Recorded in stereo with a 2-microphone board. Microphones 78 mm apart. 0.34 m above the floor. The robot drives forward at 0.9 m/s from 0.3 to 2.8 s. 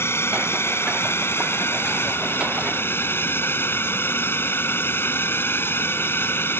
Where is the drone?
35° left (ahead or behind); by 6.6 s 30° left (ahead or behind).